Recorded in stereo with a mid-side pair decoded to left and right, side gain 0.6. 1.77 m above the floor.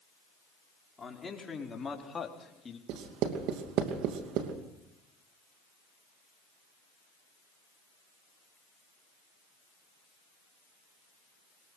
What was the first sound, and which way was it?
A man speaking, 25° left.